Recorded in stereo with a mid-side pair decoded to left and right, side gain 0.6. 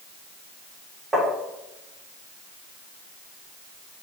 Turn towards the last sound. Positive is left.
turn(degrees=-15)